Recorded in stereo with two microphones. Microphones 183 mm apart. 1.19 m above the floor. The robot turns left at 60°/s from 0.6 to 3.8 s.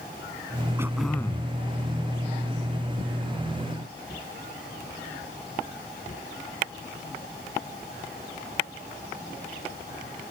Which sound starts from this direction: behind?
Throat clearing, at 0.8 s.